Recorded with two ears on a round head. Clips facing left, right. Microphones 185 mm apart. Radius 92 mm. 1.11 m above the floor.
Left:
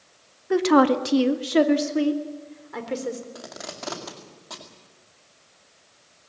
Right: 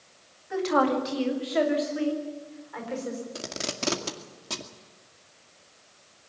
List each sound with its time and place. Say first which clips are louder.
0.5 s a woman speaking: left 7 dB; 70° left (ahead or behind), 1.7 m; by 3.2 s 50° left (ahead or behind), 4.5 m
3.4 s tape being pulled: right 3 dB; 35° right (ahead or behind), 2 m